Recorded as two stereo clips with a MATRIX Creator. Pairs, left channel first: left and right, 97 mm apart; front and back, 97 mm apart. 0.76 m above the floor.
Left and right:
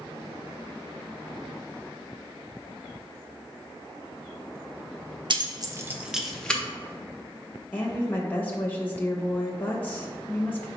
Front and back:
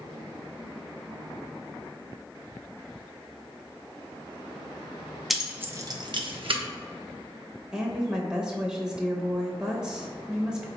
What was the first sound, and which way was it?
Keys jangling, 90° right.